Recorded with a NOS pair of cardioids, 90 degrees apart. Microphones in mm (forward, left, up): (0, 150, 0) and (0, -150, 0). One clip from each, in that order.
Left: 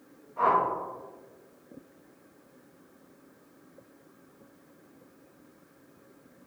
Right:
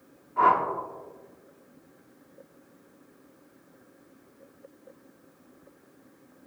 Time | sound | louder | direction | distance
0.4 | a whoosh | right 3 dB | 50° right | 1.4 m